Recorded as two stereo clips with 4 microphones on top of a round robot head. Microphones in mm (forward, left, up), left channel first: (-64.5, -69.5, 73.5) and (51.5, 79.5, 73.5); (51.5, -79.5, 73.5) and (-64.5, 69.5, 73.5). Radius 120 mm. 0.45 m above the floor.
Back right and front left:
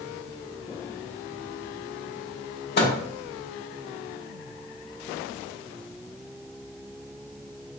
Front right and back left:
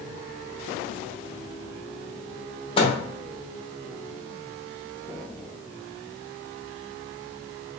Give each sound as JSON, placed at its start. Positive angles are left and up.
{"t": 2.8, "sound": "a microwave", "azimuth_deg": -110, "distance_m": 1.0}